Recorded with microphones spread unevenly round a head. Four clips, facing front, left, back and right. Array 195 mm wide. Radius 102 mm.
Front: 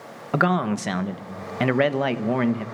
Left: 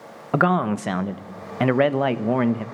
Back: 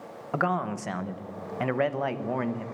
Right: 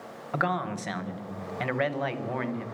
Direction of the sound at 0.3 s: 65° left.